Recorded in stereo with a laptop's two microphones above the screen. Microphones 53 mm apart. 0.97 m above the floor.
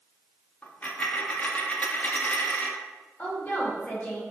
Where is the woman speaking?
30° left (ahead or behind), 1.2 m.